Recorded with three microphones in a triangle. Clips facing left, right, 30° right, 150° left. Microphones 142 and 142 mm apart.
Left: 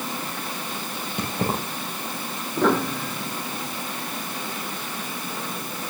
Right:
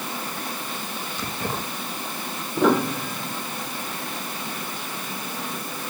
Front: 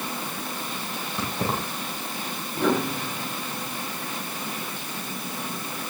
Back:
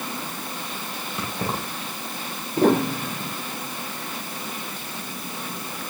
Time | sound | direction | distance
1.2 | keys jangling | 65° left | 8 m
2.6 | a piano | 175° right | 2.0 m